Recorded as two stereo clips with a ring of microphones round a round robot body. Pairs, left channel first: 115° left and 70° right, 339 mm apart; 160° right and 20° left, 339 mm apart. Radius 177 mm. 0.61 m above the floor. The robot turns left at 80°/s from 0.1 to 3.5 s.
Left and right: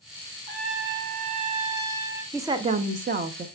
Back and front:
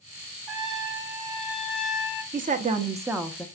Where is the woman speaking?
5° left, 0.6 m; by 3.5 s 85° right, 0.6 m.